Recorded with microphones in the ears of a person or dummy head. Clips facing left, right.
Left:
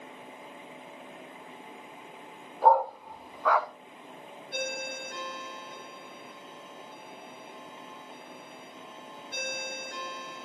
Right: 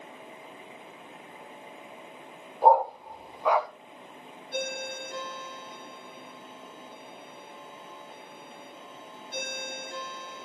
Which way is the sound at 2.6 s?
20° right (ahead or behind).